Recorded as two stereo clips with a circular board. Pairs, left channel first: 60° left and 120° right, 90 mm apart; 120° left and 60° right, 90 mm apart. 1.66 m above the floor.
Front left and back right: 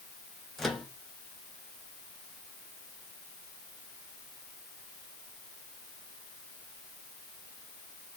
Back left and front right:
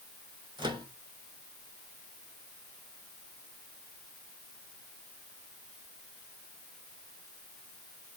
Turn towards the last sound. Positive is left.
turn(degrees=-30)